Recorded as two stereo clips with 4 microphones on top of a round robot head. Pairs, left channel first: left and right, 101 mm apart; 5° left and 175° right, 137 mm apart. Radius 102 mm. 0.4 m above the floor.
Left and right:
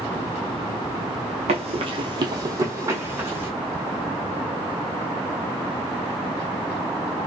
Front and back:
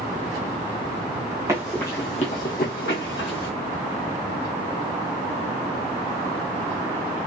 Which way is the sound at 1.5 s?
105° right.